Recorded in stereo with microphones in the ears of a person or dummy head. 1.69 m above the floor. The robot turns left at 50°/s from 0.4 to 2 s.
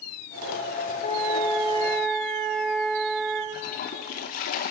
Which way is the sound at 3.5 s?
45° left (ahead or behind).